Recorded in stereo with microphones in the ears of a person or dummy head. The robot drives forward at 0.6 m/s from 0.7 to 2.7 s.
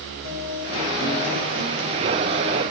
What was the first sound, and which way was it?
A guitar, 65° left (ahead or behind).